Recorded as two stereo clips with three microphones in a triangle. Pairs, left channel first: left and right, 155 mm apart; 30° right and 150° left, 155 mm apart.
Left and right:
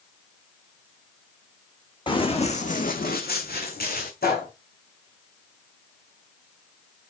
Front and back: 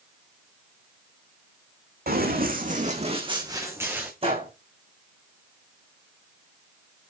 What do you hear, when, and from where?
2.1 s running footsteps: 150° left, 2 m; by 4.1 s 70° left, 2.5 m
4.2 s a gunshot: 100° left, 5 m